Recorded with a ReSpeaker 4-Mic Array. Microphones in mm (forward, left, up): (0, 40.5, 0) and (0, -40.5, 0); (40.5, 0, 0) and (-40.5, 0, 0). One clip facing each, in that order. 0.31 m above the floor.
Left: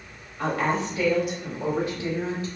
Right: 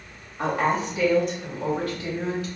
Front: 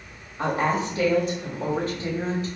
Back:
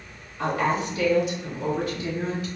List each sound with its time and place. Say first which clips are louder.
0.4 s a woman speaking: right 2 dB, front 1 dB; 35° right, 1.1 m; by 2.5 s 45° left, 1.4 m